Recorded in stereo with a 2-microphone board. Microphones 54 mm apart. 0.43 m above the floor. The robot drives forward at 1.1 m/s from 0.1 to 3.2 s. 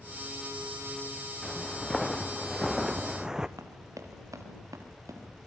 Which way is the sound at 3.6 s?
80° right.